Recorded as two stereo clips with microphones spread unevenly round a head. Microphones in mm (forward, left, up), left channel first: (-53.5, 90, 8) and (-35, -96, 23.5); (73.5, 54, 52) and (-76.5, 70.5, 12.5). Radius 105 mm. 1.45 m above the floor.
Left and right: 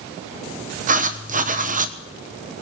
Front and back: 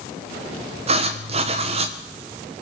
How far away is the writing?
About 1.2 m.